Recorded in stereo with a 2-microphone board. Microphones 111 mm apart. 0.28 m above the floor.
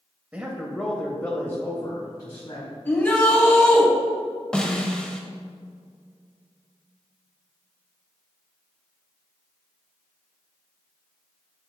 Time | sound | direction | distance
0.3 | a man speaking | 15° right (ahead or behind) | 1.0 m
2.9 | a shout | 15° left (ahead or behind) | 1.9 m
4.5 | a snare drum | 10° left (ahead or behind) | 0.8 m